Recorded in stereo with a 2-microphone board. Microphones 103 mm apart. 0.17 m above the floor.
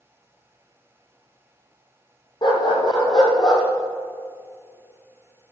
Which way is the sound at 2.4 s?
50° left (ahead or behind).